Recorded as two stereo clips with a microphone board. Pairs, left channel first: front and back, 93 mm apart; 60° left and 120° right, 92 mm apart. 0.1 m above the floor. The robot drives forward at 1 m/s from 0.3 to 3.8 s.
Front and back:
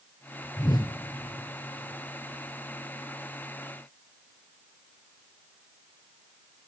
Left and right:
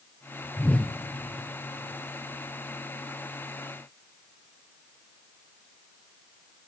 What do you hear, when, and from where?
0.6 s a whoosh: 10° right, 1.1 m; by 0.9 s 15° right, 0.9 m